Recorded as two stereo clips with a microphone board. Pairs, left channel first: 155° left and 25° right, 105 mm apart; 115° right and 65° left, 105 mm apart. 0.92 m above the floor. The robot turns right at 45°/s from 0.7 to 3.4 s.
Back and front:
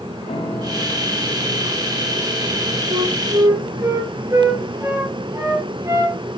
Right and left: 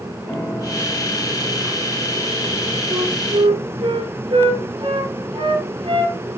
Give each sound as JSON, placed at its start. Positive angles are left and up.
{"t": 0.3, "sound": "a piano", "azimuth_deg": 175, "distance_m": 3.0}
{"t": 2.9, "sound": "a flute", "azimuth_deg": 15, "distance_m": 3.5}